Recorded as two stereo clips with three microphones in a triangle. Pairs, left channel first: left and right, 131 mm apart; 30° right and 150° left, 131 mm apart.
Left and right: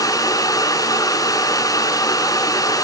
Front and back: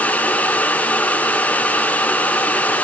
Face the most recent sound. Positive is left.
No sound to turn to.